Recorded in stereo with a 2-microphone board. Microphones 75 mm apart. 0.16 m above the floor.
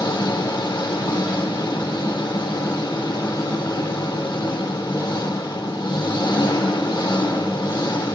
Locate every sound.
0.0 s an engine running: 70° left (ahead or behind), 4 m